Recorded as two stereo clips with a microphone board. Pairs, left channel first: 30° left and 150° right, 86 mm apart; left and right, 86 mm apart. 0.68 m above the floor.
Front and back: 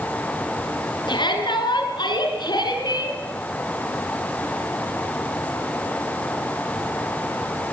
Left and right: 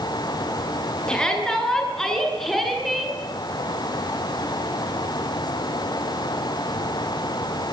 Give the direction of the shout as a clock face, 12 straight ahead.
12 o'clock.